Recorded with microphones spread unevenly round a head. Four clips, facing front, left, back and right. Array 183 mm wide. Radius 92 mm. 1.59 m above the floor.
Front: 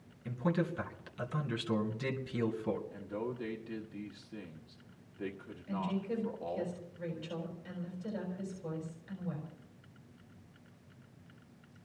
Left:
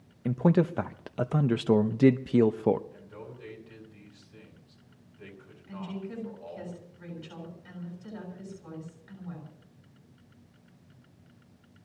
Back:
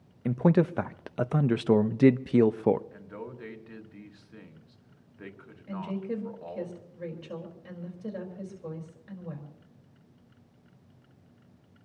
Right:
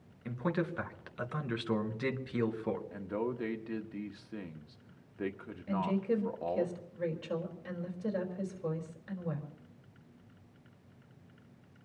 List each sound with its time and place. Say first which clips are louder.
0.2 s a man speaking: left 10 dB, back 10 dB; 140° left, 0.6 m
2.9 s a man speaking: right 10 dB, front 3 dB; 85° right, 1.3 m
5.7 s a woman speaking: right 7 dB, back 2 dB; 125° right, 4 m